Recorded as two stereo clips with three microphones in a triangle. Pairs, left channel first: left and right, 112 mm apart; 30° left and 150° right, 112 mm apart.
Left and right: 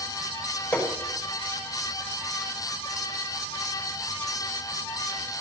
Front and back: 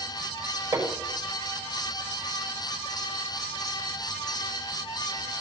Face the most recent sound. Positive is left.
turn(degrees=165)